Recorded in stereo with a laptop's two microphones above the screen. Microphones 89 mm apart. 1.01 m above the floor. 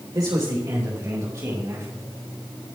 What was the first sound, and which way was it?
A man speaking, 45° right (ahead or behind).